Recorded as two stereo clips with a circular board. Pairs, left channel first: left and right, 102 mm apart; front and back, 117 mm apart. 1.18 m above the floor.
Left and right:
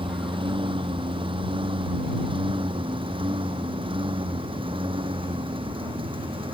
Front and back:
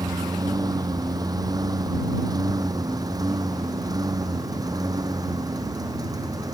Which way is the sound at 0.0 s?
125° right.